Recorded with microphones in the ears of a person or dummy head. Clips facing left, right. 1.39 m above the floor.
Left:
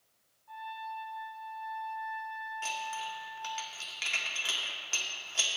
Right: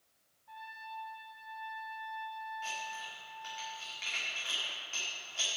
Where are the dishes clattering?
70° left (ahead or behind), 1.9 m.